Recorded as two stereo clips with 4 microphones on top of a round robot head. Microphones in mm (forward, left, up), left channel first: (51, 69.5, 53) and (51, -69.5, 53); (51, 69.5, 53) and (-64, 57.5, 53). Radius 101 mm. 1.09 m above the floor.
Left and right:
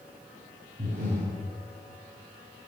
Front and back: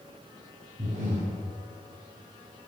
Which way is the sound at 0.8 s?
135° right.